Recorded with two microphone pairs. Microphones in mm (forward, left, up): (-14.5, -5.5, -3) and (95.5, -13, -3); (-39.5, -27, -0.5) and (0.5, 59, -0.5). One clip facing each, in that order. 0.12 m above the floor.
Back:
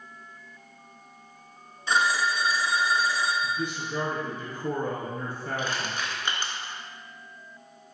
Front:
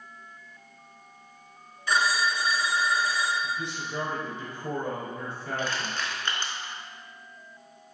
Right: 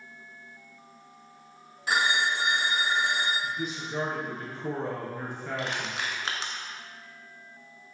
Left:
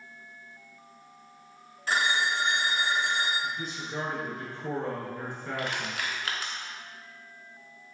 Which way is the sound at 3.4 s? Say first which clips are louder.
Back 2 dB, right 2 dB; 165° left.